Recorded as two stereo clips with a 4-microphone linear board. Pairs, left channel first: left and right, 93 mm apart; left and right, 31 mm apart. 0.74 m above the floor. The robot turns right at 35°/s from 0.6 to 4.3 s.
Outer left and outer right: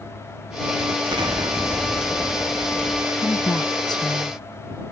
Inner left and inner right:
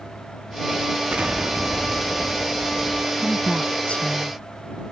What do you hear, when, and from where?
1.1 s an explosion: 120° right; by 3.0 s 50° right
3.1 s a woman speaking: 20° left (ahead or behind); by 4.9 s 60° left (ahead or behind)